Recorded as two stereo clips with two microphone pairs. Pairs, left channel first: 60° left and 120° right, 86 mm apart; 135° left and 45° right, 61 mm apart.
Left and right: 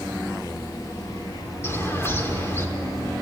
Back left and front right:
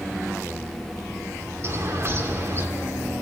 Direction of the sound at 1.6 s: 5° right.